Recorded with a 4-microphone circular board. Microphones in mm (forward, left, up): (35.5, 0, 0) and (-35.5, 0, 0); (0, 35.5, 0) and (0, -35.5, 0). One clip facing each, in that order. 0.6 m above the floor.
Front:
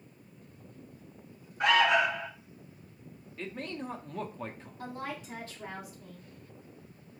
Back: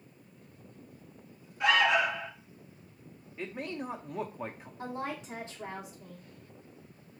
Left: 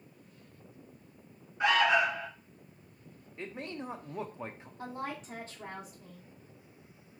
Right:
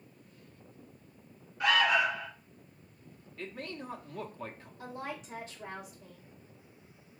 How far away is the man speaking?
About 0.6 m.